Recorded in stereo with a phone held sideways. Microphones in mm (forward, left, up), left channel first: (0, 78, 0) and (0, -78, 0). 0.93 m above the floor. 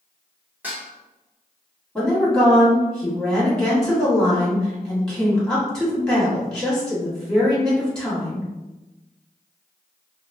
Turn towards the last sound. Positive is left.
turn(degrees=5)  # may be behind; listen again after turning